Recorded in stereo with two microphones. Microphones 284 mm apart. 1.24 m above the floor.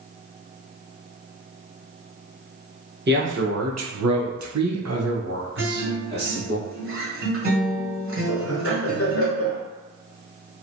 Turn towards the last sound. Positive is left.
turn(degrees=50)  # may be behind; listen again after turning